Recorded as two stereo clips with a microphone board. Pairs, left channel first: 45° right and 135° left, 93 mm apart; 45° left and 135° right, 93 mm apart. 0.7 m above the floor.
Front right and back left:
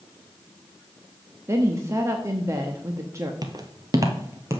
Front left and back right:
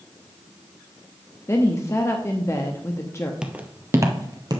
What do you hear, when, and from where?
1.5 s a woman speaking: 90° left, 0.8 m
3.4 s footsteps: 145° left, 0.9 m; by 4.6 s 170° right, 1.3 m